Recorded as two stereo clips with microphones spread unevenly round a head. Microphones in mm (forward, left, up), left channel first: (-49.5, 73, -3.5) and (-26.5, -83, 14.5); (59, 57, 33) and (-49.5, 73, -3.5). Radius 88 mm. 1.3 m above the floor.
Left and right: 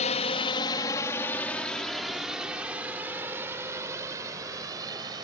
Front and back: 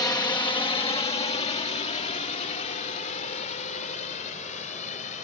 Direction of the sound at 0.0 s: 50° left.